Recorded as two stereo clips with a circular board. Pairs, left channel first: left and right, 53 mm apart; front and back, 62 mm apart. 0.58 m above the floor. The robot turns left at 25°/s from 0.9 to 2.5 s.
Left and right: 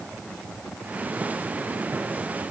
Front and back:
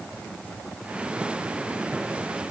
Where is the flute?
No flute in this recording.